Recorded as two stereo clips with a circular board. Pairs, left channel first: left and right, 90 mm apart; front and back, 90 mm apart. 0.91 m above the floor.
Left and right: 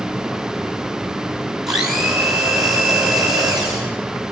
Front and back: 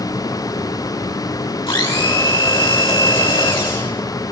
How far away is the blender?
About 7 m.